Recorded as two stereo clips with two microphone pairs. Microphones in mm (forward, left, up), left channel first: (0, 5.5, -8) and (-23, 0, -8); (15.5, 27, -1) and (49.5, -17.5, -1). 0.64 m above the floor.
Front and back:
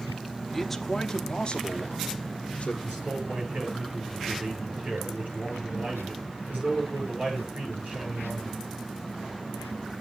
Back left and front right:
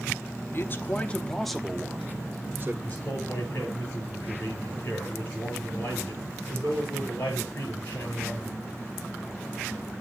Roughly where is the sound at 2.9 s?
Behind.